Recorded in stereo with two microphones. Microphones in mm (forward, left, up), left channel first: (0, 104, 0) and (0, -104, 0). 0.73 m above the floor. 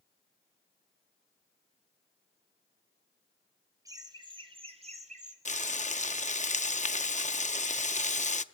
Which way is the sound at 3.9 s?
15° right (ahead or behind).